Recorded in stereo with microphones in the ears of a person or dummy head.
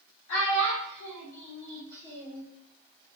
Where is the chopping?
No chopping in this recording.